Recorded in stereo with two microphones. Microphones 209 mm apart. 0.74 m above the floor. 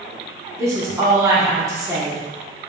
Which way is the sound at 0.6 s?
15° right (ahead or behind).